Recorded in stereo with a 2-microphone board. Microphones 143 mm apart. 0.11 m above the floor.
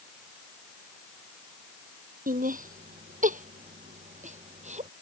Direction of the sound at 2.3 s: 65° right (ahead or behind).